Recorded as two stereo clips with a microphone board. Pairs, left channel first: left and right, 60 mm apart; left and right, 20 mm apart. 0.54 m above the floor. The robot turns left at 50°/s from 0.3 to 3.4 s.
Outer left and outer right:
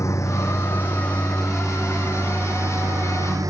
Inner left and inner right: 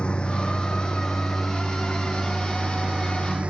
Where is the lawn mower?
60° left; by 3.5 s 95° right.